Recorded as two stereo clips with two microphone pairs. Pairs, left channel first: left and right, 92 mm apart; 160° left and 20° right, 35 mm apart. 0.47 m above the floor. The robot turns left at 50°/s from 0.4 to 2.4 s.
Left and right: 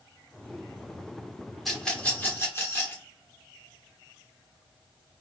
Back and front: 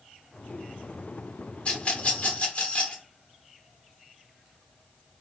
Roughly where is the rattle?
Behind.